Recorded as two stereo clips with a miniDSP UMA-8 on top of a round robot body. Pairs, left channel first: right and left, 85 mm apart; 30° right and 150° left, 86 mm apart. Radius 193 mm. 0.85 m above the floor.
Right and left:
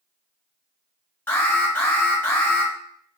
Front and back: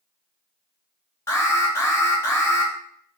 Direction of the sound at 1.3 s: 50° right.